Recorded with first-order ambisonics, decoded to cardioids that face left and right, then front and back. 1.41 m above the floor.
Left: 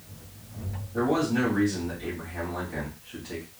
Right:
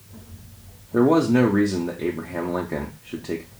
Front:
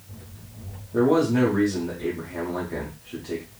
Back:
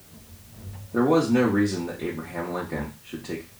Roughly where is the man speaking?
Right.